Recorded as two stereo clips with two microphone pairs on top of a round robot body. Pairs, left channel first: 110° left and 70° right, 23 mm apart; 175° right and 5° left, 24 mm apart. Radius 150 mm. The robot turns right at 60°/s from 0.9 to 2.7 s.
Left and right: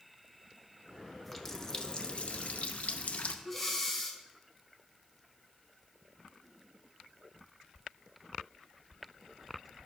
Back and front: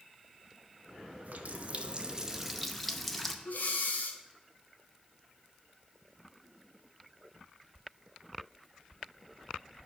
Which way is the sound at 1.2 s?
15° left.